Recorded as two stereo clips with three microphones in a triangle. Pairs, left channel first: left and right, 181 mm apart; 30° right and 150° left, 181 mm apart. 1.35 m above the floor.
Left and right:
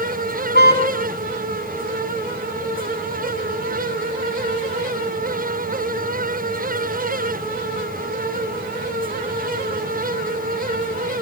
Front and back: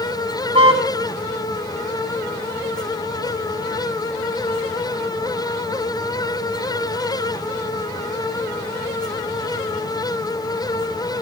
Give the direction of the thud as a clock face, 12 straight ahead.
No thud in this recording.